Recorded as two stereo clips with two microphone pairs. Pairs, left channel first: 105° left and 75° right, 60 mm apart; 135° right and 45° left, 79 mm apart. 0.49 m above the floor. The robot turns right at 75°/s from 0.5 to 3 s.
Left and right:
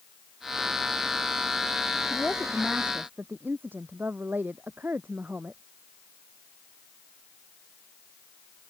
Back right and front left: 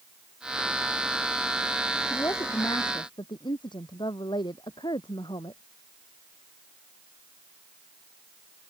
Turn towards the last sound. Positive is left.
turn(degrees=-130)